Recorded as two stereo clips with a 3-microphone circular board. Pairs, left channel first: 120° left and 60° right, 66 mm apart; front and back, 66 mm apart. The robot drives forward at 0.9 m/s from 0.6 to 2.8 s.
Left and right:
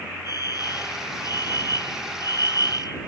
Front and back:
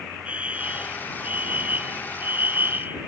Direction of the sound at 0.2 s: 110° left.